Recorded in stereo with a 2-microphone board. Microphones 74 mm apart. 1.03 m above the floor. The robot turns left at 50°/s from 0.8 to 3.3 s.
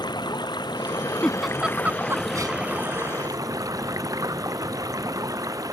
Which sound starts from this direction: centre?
A giggle, at 1.2 s.